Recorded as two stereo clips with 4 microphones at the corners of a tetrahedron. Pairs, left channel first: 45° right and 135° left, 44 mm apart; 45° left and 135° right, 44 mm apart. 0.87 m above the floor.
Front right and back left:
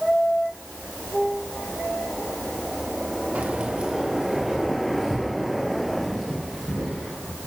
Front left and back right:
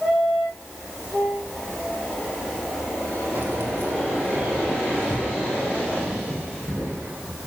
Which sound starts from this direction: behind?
Keys jangling, at 3.4 s.